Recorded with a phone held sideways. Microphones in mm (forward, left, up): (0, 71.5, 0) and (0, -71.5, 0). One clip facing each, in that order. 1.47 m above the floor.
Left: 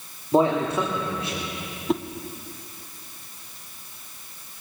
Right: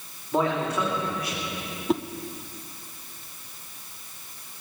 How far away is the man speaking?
About 2.5 m.